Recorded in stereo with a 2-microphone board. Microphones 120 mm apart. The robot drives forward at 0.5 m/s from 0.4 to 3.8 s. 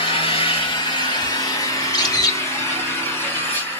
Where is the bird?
40° left (ahead or behind), 0.7 m; by 2.4 s 30° left (ahead or behind), 0.8 m.